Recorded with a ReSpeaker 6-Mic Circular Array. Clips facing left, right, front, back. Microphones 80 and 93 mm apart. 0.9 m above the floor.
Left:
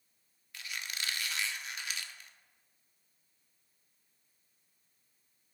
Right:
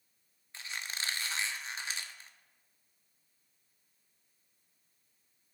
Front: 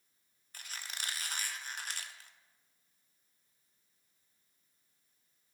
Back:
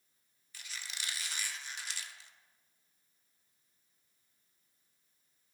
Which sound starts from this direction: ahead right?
A squeak, at 0.5 s.